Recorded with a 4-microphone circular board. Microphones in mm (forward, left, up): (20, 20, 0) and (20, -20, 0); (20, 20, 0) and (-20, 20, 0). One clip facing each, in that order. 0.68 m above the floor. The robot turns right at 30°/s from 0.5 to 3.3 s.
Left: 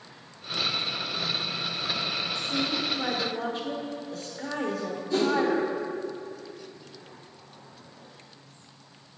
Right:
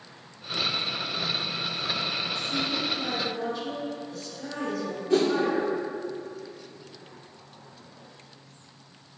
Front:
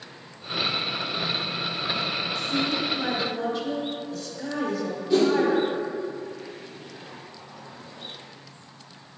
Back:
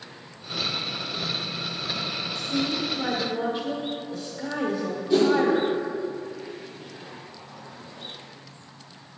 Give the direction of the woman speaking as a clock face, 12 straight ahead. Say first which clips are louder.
Left 2 dB, back 1 dB; 9 o'clock.